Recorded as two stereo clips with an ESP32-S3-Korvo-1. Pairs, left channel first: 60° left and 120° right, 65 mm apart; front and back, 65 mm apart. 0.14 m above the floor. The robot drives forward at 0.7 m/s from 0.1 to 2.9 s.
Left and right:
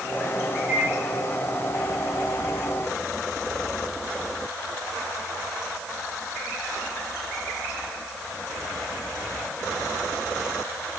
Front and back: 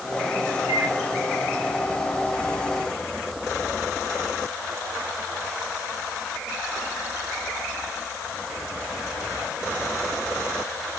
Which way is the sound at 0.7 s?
Straight behind.